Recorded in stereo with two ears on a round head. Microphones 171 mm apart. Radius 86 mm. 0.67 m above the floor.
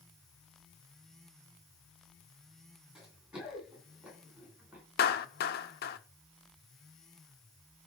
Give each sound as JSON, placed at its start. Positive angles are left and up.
{"t": 3.0, "sound": "running footsteps", "side_deg": -5, "distance_m": 10.0}
{"t": 5.0, "sound": "a clap", "side_deg": 50, "distance_m": 1.0}